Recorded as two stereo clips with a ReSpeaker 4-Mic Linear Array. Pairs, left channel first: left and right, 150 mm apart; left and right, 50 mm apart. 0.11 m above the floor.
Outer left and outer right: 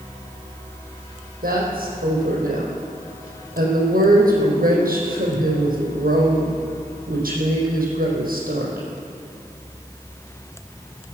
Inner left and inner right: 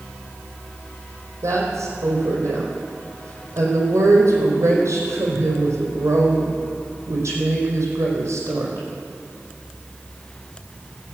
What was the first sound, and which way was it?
A woman speaking, 70° right (ahead or behind).